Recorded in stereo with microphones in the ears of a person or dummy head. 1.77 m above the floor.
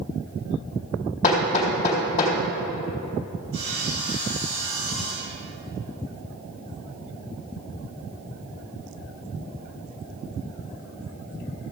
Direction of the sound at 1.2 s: 45° left (ahead or behind).